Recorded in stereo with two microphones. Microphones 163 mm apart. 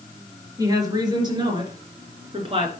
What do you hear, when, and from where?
0.6 s a woman speaking: 25° right (ahead or behind), 3.5 m; by 2.7 s 40° right (ahead or behind), 2.5 m